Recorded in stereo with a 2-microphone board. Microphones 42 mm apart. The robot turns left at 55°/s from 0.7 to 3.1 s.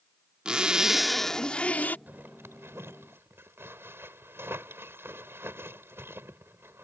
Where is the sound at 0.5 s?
160° right; by 2.0 s 130° left.